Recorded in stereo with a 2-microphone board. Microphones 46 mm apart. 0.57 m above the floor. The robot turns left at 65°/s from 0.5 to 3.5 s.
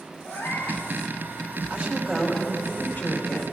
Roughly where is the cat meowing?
Left.